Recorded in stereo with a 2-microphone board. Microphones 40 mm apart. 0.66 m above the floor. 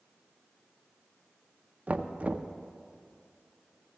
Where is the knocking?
40° right (ahead or behind), 0.6 m.